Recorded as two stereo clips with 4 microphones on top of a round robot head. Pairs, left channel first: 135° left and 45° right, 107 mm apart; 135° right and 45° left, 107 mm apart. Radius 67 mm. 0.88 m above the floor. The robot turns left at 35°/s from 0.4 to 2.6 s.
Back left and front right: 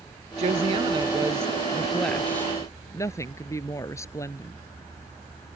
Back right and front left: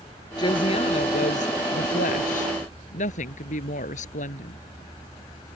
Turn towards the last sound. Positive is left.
turn(degrees=-160)